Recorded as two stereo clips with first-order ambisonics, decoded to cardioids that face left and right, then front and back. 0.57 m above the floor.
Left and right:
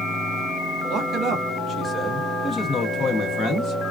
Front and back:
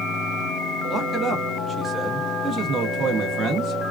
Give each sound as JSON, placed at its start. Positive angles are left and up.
{"t": 0.9, "sound": "a man speaking", "azimuth_deg": -70, "distance_m": 0.9}